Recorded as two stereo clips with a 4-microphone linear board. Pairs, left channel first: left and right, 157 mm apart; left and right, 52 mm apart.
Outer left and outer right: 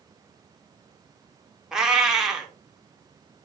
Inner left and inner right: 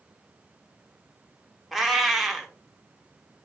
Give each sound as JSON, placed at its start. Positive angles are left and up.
{"t": 1.7, "sound": "a cat meowing", "side_deg": -5, "distance_m": 0.7}